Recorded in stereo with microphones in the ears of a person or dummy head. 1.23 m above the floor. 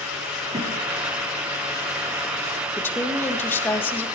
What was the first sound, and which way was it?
A thud, 30° right (ahead or behind).